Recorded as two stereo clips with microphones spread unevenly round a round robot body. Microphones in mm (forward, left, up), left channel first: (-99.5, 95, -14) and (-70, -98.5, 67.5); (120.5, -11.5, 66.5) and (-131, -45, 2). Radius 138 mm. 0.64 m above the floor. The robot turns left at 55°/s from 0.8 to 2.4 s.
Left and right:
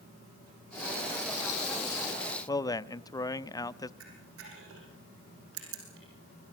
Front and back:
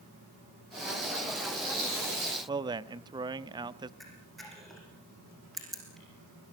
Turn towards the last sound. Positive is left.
turn(degrees=-80)